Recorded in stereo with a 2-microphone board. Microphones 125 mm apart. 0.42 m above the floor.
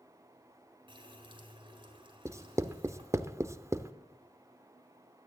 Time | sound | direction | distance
0.9 | a running tap | 40° right (ahead or behind) | 2.5 m
2.2 | writing | 20° right (ahead or behind) | 0.5 m